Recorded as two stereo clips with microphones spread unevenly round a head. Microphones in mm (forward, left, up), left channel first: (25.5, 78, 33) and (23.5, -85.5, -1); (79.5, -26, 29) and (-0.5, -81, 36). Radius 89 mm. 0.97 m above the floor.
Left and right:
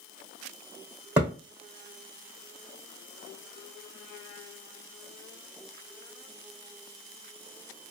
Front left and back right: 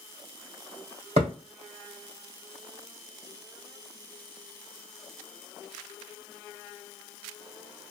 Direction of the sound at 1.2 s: 175° right.